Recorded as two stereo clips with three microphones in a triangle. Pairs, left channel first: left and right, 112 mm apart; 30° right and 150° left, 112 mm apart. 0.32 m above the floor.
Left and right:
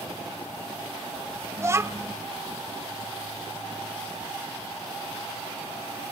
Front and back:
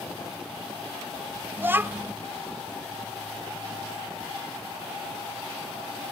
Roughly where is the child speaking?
Behind right.